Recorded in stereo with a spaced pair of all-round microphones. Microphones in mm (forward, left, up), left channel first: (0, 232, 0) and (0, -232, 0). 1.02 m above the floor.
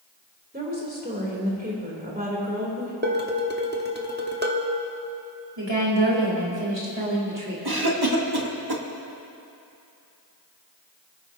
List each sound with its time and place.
0.5 s a woman speaking: 20° right (ahead or behind), 3 m
3.0 s dishes clattering: 20° right (ahead or behind), 1.2 m
5.6 s a woman speaking: 65° right (ahead or behind), 3.5 m
7.7 s a cough: 55° right (ahead or behind), 1.7 m